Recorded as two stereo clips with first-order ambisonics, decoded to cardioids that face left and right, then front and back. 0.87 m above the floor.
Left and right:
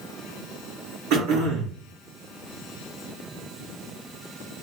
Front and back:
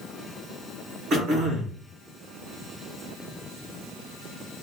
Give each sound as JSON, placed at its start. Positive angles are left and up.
{"t": 1.1, "sound": "throat clearing", "azimuth_deg": -130, "distance_m": 3.0}